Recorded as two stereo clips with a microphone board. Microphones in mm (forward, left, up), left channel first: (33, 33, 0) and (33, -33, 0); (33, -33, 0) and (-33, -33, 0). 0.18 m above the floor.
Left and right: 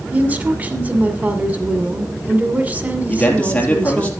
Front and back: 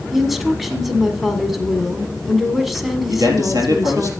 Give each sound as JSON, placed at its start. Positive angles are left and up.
{"t": 0.1, "sound": "a woman speaking", "azimuth_deg": -95, "distance_m": 1.6}
{"t": 3.1, "sound": "a man speaking", "azimuth_deg": 160, "distance_m": 3.5}